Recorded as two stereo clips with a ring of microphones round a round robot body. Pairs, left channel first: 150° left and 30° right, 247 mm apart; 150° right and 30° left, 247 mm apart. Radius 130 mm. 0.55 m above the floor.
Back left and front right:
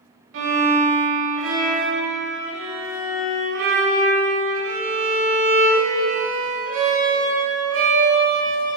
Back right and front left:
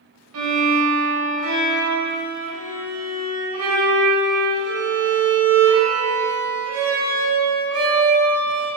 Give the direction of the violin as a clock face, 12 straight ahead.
12 o'clock.